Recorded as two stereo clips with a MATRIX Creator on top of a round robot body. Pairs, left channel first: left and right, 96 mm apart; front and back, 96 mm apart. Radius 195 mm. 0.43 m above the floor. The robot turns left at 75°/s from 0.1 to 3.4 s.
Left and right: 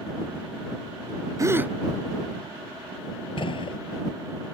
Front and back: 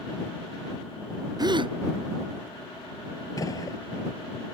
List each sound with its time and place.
1.4 s a gasp: 140° right; by 1.8 s 170° right
3.4 s a gunshot: 55° left